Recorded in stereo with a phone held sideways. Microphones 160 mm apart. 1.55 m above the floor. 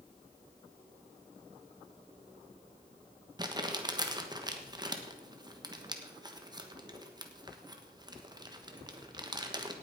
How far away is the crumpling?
About 1.3 m.